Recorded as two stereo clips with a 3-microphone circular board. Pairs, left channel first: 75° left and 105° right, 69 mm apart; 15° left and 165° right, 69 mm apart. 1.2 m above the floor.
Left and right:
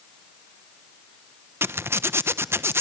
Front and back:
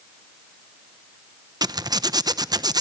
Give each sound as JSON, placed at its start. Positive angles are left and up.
{"t": 1.6, "sound": "a zipper", "azimuth_deg": -160, "distance_m": 0.9}